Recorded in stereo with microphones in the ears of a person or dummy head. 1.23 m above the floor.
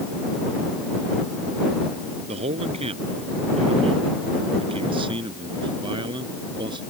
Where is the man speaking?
35° right (ahead or behind); by 6.8 s 25° right (ahead or behind).